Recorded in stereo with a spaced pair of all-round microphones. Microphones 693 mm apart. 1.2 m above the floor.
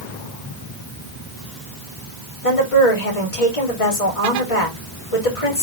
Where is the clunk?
I don't hear a clunk.